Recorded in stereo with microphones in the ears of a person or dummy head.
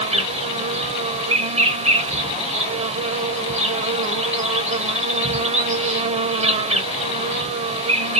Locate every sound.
0.0 s an insect: 35° right (ahead or behind), 0.8 m